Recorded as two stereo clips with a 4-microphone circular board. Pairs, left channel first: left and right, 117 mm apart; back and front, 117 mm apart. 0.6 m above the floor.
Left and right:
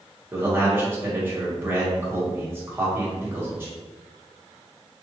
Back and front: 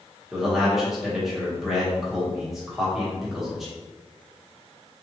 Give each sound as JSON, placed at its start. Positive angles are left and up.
{"t": 0.3, "sound": "a man speaking", "azimuth_deg": -80, "distance_m": 1.1}